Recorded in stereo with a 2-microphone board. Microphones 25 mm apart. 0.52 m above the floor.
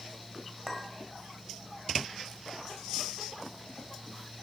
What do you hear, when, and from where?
0.7 s a clink: 15° right (ahead or behind), 1.8 m